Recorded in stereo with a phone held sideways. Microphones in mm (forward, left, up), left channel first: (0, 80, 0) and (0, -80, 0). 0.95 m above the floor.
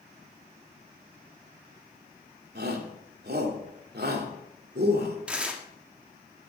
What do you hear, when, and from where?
2.5 s a shout: 75° right (ahead or behind), 2.5 m
5.3 s tearing paper: 5° right (ahead or behind), 1.5 m